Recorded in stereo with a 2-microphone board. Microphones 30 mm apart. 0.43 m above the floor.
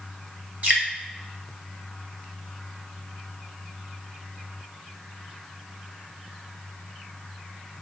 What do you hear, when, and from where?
0.6 s dripping: 50° right (ahead or behind), 2.5 m